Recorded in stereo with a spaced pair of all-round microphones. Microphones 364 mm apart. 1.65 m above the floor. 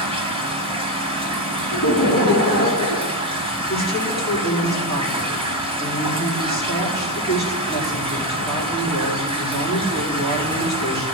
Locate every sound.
0.0 s running water: 15° right (ahead or behind), 1.8 m
1.7 s laughter: 60° left (ahead or behind), 1.2 m
3.7 s a woman speaking: 25° left (ahead or behind), 4.5 m